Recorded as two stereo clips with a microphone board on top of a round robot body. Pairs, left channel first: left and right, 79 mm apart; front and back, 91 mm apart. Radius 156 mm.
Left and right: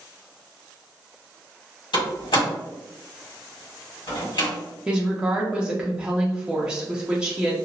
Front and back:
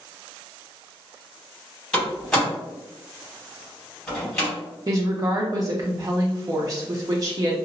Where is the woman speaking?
160° right, 0.7 m.